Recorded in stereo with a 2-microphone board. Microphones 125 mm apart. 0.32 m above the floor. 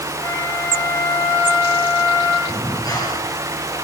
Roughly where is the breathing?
Left.